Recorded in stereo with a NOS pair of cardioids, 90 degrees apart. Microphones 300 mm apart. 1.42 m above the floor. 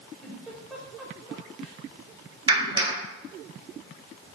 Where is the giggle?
Straight ahead, 5.5 m.